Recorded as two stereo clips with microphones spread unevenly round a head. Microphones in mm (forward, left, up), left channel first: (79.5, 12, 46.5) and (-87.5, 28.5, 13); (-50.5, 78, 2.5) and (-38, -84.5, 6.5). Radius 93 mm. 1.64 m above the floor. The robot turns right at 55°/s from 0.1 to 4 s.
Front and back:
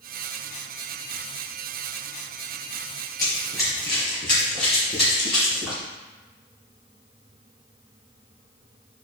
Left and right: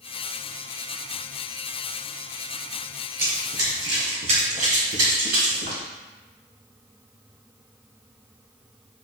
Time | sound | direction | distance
3.2 | running footsteps | 50° right | 1.6 m